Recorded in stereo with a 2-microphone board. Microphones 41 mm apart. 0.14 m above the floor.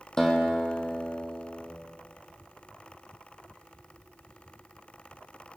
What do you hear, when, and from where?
0.2 s a guitar: 15° left (ahead or behind), 2 m